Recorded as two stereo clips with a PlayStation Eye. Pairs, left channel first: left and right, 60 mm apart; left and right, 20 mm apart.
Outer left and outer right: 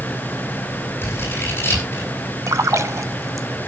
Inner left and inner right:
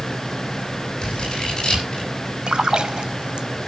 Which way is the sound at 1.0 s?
40° left (ahead or behind).